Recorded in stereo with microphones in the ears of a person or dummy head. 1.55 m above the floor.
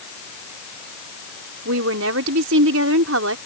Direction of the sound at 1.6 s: 70° right (ahead or behind).